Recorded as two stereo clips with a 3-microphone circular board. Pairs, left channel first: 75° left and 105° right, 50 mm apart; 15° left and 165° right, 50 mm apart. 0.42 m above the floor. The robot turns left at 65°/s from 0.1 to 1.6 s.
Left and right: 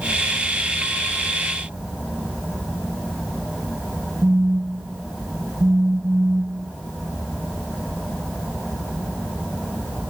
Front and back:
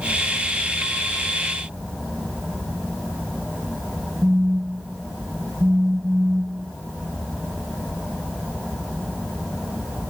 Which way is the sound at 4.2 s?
105° right.